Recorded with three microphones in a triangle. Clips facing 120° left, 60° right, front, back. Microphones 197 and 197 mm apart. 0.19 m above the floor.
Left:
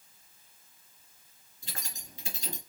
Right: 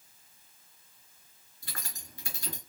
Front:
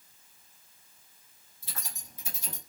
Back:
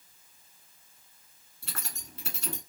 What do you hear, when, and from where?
1.6 s keys jangling: 170° right, 2 m